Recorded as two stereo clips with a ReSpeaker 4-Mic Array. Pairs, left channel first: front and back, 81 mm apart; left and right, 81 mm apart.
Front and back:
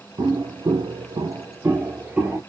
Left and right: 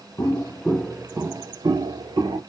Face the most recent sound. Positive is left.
turn(degrees=-105)